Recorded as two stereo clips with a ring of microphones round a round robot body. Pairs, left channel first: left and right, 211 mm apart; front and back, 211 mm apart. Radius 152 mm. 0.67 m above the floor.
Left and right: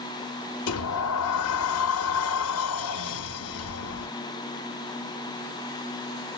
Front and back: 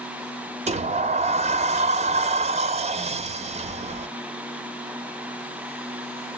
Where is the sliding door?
115° left, 0.5 m.